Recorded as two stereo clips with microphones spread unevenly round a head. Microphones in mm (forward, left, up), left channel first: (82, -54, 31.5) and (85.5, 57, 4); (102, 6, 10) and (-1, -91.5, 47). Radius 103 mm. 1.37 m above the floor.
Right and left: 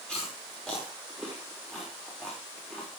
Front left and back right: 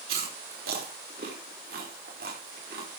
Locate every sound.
0.1 s chewing: straight behind, 5 m